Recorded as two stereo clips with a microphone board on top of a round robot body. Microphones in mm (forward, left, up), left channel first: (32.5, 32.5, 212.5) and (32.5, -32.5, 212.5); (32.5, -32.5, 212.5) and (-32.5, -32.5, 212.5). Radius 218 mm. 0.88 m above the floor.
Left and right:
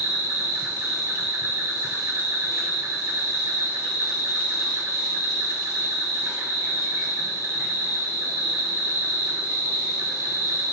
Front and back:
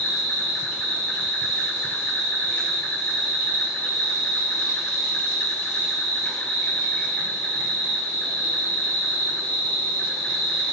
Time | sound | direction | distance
0.0 | an insect | 70° right | 1.5 m